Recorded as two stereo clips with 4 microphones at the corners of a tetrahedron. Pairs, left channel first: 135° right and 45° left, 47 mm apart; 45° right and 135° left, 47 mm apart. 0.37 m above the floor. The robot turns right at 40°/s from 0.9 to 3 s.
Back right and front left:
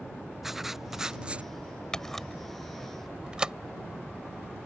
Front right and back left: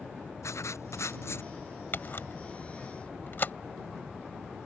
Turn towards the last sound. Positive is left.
turn(degrees=-25)